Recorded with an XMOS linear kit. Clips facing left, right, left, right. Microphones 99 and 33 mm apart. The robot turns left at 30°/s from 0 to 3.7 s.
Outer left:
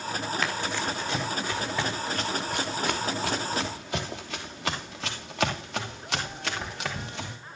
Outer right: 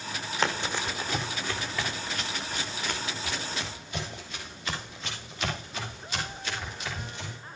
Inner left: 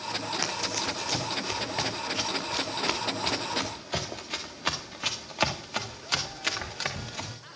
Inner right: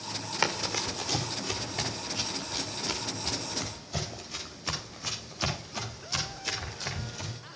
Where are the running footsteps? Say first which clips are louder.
Outer right 5 dB, inner right 1 dB; 30° right (ahead or behind), 1.7 m; by 7.4 s 75° left (ahead or behind), 5.5 m.